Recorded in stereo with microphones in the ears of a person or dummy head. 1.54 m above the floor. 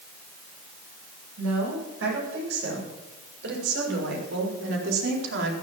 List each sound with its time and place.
1.4 s a woman speaking: 75° right (ahead or behind), 8.5 m